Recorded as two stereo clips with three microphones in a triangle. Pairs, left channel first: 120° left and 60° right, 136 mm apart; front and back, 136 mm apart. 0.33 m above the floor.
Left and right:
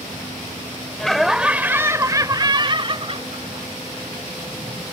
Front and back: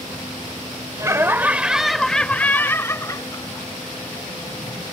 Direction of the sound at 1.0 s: 160° right.